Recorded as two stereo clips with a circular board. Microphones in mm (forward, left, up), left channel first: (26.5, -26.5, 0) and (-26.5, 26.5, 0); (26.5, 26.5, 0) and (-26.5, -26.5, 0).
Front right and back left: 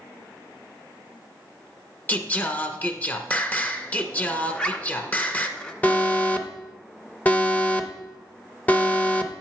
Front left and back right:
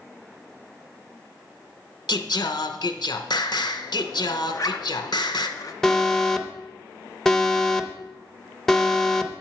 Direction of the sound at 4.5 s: 25° left.